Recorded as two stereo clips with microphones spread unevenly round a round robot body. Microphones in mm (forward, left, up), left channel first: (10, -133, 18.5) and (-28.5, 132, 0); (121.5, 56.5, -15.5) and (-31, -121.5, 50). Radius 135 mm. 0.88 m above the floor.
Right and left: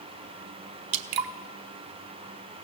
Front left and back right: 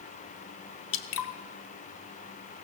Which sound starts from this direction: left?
Dripping, at 0.9 s.